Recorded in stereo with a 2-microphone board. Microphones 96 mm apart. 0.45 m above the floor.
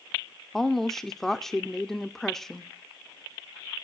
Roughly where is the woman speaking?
Centre.